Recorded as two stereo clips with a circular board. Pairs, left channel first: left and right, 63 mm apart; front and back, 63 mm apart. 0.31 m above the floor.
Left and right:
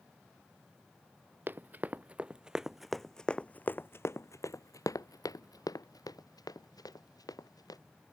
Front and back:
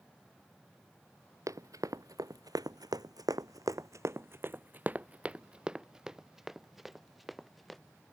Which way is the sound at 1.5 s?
145° right.